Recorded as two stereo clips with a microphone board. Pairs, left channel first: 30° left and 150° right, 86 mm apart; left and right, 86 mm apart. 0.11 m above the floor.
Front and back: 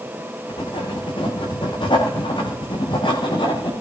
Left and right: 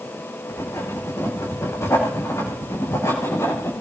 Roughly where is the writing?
Ahead left.